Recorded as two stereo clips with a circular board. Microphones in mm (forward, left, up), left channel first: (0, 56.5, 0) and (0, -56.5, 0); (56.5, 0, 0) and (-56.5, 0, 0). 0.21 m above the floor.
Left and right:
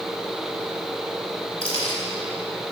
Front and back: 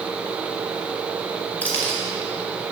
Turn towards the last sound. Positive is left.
turn(degrees=70)